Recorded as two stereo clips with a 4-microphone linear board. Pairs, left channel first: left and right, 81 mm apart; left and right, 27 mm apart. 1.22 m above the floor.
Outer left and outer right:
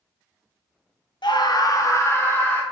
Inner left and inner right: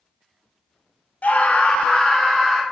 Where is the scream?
70° left (ahead or behind), 1.4 m; by 2.6 s 25° left (ahead or behind), 3 m.